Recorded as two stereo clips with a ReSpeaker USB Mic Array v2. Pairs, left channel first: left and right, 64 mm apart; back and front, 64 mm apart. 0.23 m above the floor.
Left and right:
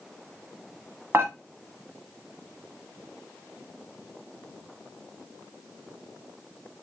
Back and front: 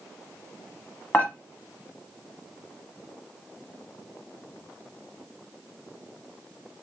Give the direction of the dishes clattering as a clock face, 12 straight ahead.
4 o'clock.